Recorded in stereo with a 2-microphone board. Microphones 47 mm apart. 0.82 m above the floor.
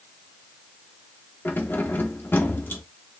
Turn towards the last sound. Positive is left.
turn(degrees=50)  # may be behind; listen again after turning